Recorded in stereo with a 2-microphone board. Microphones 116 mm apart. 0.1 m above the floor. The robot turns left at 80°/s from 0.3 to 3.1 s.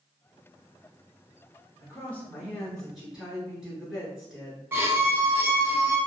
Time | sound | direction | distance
1.8 | a woman speaking | 20° left (ahead or behind) | 1.3 m
4.7 | a violin | 20° right (ahead or behind) | 0.8 m